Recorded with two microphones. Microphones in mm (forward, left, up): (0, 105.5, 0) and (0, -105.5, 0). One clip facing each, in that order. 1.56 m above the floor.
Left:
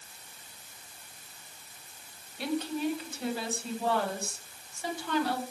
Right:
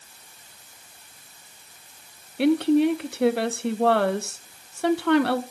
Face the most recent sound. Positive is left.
turn(degrees=-70)  # may be behind; listen again after turning